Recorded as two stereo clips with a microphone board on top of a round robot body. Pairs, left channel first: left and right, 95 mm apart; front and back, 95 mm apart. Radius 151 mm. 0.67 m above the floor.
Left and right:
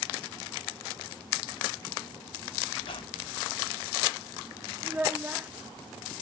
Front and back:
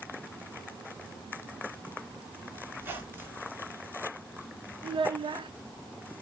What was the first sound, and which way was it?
A squeak, 115° left.